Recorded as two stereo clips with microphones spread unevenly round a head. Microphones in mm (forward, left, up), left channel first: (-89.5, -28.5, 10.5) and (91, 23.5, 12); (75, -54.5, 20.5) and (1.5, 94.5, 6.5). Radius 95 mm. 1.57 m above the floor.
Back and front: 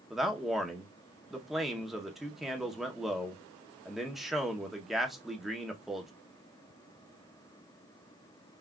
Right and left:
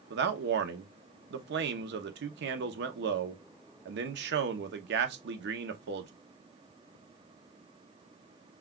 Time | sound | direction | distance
0.1 | a man speaking | 105° left | 0.7 m